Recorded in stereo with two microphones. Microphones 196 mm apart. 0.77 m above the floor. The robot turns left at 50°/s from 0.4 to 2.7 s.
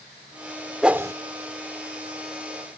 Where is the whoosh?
5° right (ahead or behind); by 1.1 s 20° right (ahead or behind).